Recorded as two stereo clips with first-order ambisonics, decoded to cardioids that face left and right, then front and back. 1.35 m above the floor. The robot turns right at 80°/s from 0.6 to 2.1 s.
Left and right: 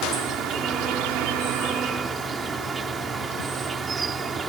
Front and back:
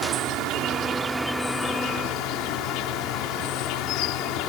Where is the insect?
140° right; by 4.5 s 20° right.